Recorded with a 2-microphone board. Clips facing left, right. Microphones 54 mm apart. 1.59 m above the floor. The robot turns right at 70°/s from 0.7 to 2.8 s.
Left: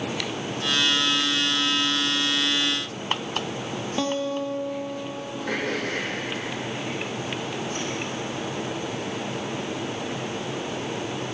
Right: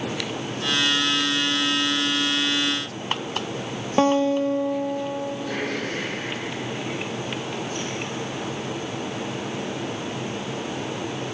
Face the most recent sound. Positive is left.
turn(degrees=60)  # may be behind; listen again after turning